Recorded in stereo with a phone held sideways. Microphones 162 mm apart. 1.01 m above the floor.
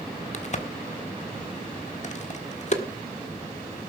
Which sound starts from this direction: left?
A crack, at 0.3 s.